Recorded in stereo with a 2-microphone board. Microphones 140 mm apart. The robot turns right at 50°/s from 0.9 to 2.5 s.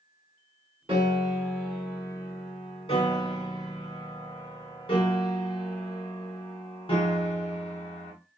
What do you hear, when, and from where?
0.9 s a piano: 40° right, 1.9 m; by 8.1 s 40° left, 1.9 m